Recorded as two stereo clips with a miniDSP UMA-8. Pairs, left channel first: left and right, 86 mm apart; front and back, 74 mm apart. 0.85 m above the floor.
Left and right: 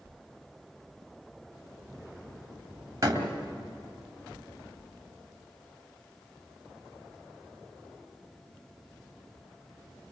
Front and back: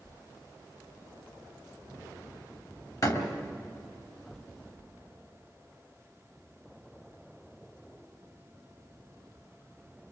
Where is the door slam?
40° right, 3 m.